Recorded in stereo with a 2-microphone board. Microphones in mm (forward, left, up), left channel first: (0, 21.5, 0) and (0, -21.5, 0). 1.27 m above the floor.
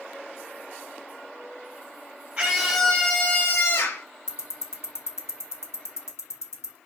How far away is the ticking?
About 1.2 m.